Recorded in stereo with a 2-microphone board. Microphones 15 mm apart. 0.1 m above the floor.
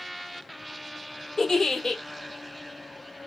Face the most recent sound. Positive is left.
turn(degrees=30)  # may be behind; listen again after turning